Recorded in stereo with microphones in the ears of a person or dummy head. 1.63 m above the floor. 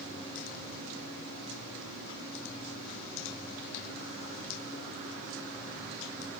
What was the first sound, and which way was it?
Only background noise.